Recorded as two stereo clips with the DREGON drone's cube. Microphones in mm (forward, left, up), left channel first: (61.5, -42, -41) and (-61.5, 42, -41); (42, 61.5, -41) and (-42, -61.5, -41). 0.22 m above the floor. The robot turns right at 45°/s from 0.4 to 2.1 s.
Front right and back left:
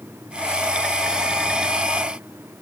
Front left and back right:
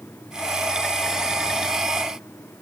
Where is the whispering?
No whispering in this recording.